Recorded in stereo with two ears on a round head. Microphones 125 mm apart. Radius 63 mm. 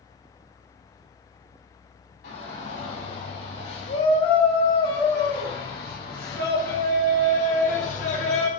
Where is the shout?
75° left (ahead or behind), 4 m; by 8.5 s 50° left (ahead or behind), 1.9 m.